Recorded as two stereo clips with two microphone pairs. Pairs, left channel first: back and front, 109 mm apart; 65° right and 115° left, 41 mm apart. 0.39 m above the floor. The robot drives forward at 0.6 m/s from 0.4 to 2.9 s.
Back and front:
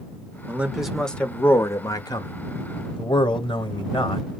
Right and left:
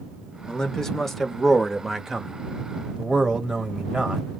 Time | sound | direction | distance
0.5 | a man speaking | 40° right | 0.9 m